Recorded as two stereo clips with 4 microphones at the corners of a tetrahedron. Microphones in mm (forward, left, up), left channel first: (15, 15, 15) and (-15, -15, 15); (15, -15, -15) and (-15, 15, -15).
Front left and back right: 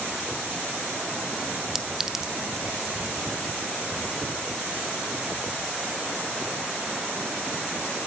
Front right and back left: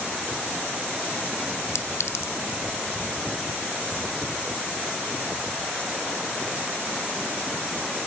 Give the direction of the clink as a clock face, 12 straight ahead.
2 o'clock.